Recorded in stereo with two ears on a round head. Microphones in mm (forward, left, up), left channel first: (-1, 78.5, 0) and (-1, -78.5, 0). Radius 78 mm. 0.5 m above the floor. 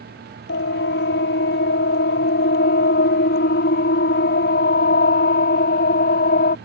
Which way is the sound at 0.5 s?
65° left (ahead or behind).